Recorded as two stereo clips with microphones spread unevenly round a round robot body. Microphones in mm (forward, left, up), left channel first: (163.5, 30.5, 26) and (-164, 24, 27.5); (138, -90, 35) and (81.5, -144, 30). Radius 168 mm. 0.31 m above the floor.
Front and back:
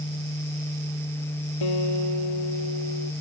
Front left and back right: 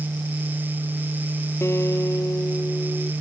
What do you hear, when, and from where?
1.6 s a guitar: 10° right